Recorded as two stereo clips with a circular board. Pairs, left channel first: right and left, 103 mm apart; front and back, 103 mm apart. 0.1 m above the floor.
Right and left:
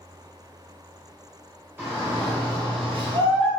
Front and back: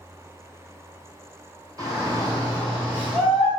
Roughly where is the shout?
Behind left.